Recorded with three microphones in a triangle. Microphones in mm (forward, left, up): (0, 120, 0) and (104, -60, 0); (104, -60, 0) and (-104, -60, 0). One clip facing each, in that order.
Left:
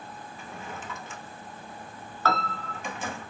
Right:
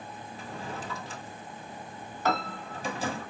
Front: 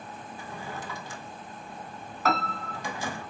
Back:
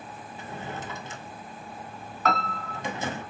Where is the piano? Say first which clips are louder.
Even, even; 85° right, 1.2 m.